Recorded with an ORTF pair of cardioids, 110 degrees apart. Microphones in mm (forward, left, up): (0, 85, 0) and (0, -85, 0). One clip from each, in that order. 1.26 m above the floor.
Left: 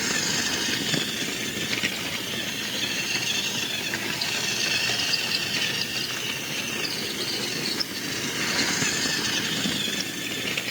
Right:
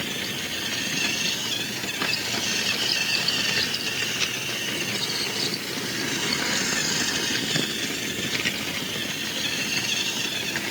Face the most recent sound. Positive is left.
No sound to turn to.